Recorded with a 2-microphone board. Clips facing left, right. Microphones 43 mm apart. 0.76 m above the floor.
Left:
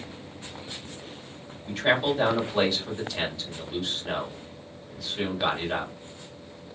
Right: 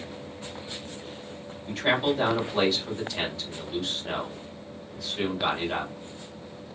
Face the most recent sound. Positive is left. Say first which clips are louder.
# left 1 dB
turn(degrees=5)  # may be behind; listen again after turning